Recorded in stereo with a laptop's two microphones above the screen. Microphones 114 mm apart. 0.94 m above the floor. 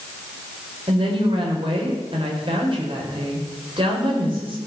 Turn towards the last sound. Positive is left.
turn(degrees=-50)  # may be behind; listen again after turning